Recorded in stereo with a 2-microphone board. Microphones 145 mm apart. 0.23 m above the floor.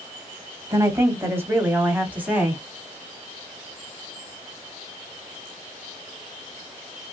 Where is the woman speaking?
20° right (ahead or behind), 1.2 m; by 2.6 s 10° right (ahead or behind), 1.3 m.